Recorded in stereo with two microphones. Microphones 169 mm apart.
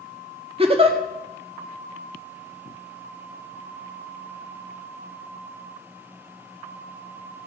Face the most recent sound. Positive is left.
turn(degrees=-35)  # may be behind; listen again after turning